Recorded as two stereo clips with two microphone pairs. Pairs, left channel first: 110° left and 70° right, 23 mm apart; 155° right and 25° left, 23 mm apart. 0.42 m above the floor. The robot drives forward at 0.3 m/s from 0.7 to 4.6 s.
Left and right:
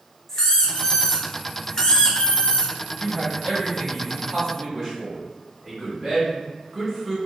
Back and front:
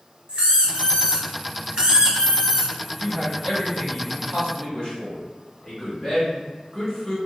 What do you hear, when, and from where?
0.3 s a squeak: 35° left, 0.8 m; by 2.7 s 95° left, 0.6 m
3.0 s a man speaking: 110° right, 1.4 m; by 7.2 s 135° right, 1.5 m